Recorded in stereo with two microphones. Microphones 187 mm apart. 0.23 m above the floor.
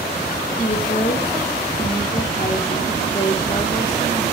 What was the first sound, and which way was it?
A woman speaking, 35° left (ahead or behind).